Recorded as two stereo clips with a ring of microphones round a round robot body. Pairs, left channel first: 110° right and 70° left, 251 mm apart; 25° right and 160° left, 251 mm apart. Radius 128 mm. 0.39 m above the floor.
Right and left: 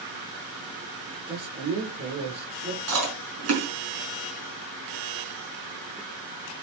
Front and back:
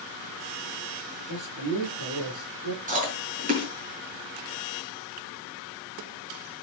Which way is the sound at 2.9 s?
100° left.